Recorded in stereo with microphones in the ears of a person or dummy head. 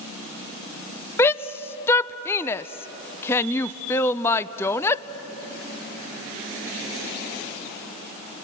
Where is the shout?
10° left (ahead or behind), 0.6 m.